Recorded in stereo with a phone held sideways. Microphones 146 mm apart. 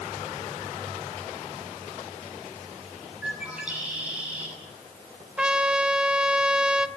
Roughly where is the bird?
Centre.